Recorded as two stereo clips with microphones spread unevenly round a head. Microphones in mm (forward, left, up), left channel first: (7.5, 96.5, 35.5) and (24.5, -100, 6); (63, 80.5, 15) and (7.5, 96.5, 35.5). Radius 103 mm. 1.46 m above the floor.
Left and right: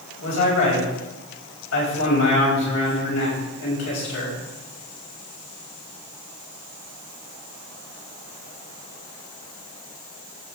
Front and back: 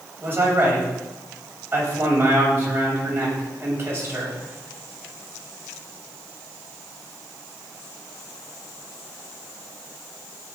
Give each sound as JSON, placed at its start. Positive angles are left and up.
{"t": 0.2, "sound": "a man speaking", "azimuth_deg": 115, "distance_m": 6.5}